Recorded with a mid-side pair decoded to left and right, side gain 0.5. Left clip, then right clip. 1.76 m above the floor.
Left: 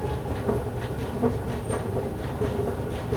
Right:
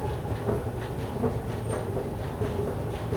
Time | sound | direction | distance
0.0 | a machine running | 15° left | 0.9 m